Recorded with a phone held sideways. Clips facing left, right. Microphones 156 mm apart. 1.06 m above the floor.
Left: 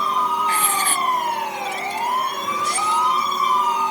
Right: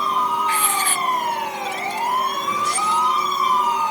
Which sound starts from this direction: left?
Writing, at 0.5 s.